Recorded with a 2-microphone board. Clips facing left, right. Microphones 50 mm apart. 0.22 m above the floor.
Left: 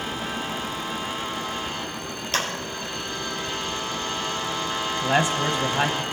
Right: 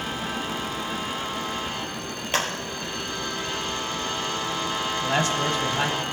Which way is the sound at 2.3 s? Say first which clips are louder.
Right 1 dB; 25° right (ahead or behind).